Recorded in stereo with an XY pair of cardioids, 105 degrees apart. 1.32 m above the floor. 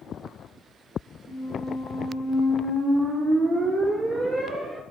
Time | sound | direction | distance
1.3 | a squeak | 35° right | 1.3 m